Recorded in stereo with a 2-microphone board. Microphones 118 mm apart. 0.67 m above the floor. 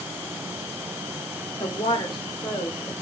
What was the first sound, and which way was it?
A woman speaking, 40° left (ahead or behind).